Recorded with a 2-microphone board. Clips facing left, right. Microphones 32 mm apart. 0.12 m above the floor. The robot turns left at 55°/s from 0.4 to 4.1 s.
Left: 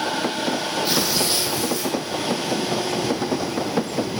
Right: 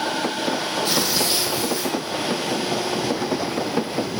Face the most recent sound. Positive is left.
turn(degrees=-165)